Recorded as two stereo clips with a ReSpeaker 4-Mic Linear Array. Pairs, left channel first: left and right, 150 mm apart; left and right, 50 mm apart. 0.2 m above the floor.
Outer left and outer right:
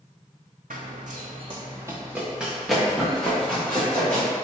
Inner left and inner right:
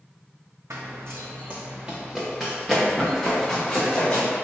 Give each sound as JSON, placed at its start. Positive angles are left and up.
{"t": 0.7, "sound": "running footsteps", "side_deg": -75, "distance_m": 0.6}